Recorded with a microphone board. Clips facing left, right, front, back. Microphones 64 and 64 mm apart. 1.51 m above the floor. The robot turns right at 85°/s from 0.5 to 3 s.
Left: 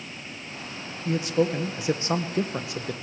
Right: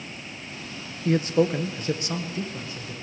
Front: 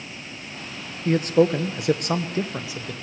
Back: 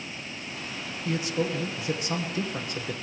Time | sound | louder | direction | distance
1.1 | a man speaking | right 2 dB, front 10 dB | 55° right | 1.1 m